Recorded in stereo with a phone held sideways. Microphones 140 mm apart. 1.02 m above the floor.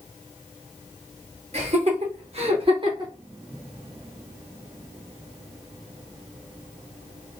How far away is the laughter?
About 1.3 m.